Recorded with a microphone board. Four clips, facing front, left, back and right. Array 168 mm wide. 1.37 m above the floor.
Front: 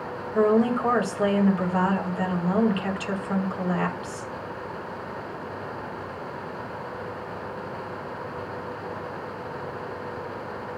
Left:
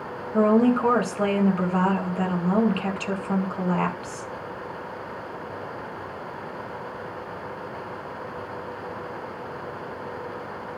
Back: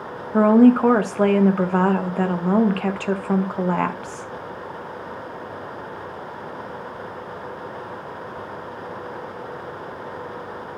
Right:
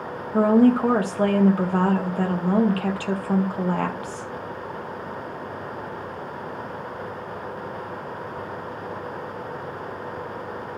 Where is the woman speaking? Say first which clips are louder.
Right 2 dB, back 7 dB; 165° right, 1.7 m.